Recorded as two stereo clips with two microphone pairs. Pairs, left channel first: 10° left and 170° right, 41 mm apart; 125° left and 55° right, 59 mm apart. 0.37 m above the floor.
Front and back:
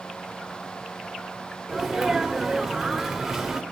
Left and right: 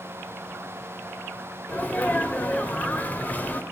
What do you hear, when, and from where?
1.7 s a sneeze: 115° left, 1.5 m